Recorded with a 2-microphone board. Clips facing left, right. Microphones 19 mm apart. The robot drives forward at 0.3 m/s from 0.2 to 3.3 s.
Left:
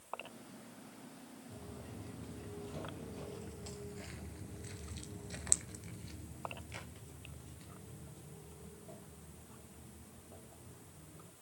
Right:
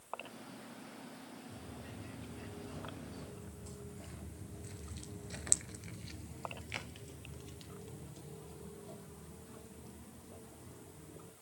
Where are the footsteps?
60° left (ahead or behind), 3.5 m; by 11.3 s 65° right (ahead or behind), 5.5 m.